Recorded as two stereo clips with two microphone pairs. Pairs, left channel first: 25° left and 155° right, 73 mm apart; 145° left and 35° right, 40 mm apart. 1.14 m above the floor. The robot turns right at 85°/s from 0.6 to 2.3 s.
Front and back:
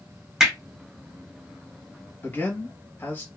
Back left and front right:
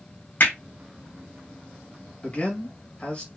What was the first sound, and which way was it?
Hammering, 125° left.